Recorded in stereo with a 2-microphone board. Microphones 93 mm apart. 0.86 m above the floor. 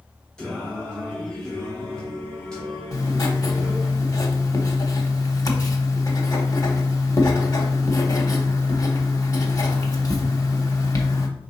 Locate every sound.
0.4 s singing: 10° left (ahead or behind), 1.9 m
2.9 s writing: 40° left (ahead or behind), 0.9 m